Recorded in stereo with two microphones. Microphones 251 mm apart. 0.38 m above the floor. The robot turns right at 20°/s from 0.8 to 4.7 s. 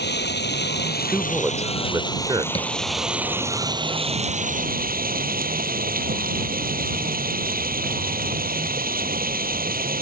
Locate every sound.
0.0 s running water: 135° left; by 10.0 s 145° right
1.1 s a man speaking: 5° right (ahead or behind); by 2.5 s 20° right (ahead or behind)
2.5 s tapping: 20° left (ahead or behind)